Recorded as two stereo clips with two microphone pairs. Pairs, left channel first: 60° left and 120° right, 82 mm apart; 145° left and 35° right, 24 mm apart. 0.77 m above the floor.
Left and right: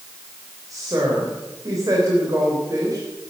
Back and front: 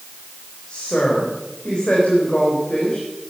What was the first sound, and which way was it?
A woman speaking, 160° right.